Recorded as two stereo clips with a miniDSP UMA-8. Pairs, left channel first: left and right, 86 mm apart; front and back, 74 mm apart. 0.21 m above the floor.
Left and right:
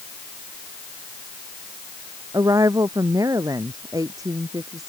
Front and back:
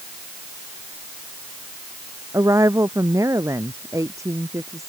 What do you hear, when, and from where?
2.3 s a woman speaking: 135° right